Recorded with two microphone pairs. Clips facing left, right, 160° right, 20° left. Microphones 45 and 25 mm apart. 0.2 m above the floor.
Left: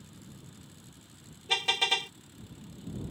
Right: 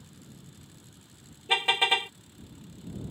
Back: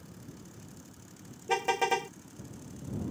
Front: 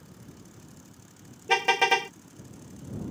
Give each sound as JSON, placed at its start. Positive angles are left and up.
{"t": 1.5, "sound": "a car horn", "azimuth_deg": -20}